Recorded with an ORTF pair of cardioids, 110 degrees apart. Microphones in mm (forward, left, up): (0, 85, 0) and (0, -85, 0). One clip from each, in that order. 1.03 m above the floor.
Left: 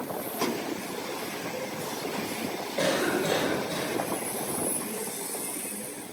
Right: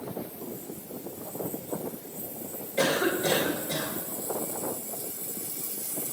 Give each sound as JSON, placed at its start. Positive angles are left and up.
{"t": 2.8, "sound": "a cough", "azimuth_deg": -15, "distance_m": 4.0}